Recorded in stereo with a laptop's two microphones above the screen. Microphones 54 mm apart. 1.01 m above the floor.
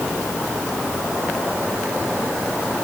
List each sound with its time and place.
Only background noise.